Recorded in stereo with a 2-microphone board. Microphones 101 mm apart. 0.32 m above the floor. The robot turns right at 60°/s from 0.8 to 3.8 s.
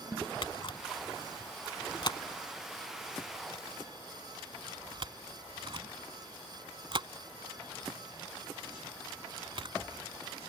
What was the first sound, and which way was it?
A camera shutter, 50° left (ahead or behind).